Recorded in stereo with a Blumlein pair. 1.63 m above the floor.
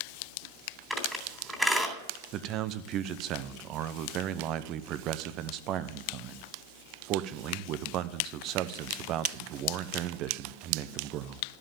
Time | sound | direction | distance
0.9 | a squeak | 5° right | 3 m
2.3 | a man speaking | 35° right | 0.8 m